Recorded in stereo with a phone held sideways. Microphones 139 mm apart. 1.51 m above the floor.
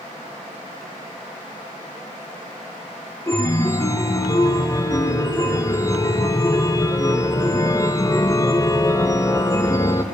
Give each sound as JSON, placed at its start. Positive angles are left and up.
{"t": 3.3, "sound": "a chime", "side_deg": 20, "distance_m": 0.7}